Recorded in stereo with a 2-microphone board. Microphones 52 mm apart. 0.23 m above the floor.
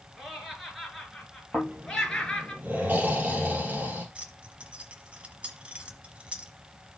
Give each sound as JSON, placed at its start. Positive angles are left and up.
{"t": 0.2, "sound": "laughter", "side_deg": -10, "distance_m": 3.5}
{"t": 1.5, "sound": "snoring", "side_deg": -30, "distance_m": 3.0}
{"t": 4.2, "sound": "keys jangling", "side_deg": -25, "distance_m": 1.2}